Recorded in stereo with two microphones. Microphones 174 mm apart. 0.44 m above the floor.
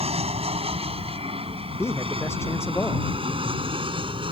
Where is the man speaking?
15° left (ahead or behind).